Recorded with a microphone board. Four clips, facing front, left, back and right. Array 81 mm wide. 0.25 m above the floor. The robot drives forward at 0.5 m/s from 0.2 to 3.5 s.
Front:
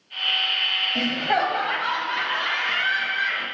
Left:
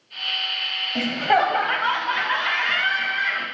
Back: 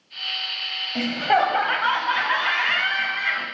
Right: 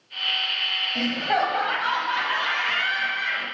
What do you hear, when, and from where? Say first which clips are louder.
0.9 s laughter: left 4 dB, back 3 dB; 100° left, 0.9 m; by 3.5 s 165° left, 1.6 m